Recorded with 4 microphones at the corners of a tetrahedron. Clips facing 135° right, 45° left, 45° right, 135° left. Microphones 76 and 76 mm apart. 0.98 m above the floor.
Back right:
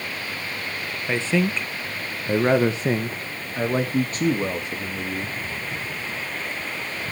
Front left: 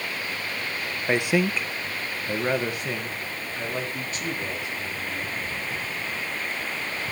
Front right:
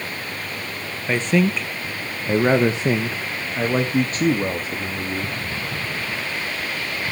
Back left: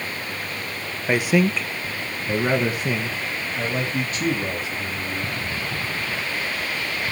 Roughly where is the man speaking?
Left.